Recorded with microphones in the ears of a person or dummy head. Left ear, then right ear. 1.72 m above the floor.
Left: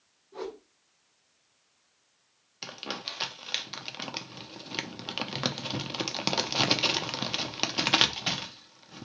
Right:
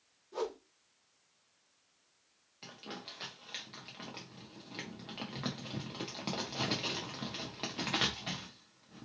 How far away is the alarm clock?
No alarm clock in this recording.